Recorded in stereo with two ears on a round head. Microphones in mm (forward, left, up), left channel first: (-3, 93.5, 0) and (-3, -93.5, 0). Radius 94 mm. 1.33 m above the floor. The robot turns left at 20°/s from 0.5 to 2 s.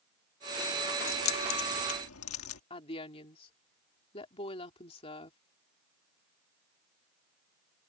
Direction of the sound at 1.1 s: 70° left (ahead or behind).